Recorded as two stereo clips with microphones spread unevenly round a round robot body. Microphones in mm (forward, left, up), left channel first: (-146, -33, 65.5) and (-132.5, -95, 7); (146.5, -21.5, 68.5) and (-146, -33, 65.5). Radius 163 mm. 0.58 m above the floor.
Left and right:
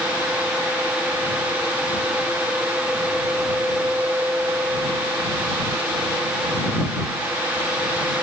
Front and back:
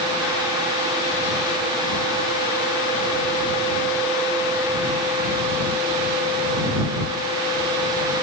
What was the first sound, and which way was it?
Only background noise.